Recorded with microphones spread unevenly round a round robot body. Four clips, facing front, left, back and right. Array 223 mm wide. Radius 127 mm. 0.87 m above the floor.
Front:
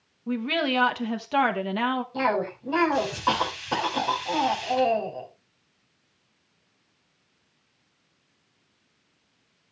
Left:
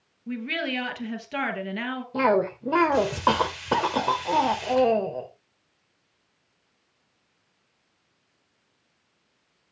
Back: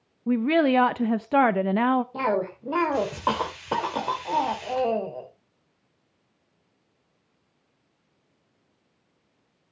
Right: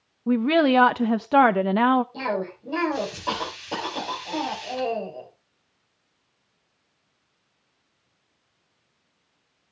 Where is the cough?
95° left, 3.5 m.